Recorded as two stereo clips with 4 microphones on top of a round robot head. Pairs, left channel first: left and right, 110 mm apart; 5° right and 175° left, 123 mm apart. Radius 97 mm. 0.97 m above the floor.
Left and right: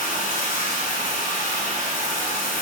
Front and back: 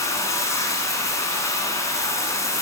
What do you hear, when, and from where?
0.0 s running water: 65° left, 2 m